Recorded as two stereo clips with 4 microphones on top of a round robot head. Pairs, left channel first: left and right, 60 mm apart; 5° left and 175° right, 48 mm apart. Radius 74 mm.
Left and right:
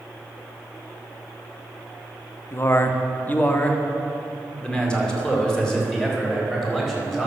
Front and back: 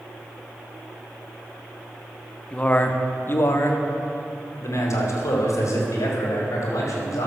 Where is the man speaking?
65° left, 1.0 m; by 7.3 s 5° left, 4 m.